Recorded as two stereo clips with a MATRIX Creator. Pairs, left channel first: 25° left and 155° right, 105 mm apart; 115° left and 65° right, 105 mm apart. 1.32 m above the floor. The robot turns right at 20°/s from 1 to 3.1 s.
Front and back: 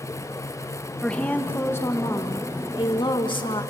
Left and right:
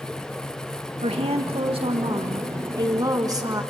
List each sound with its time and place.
1.0 s a woman speaking: 55° right, 1.9 m; by 3.6 s 15° right, 1.9 m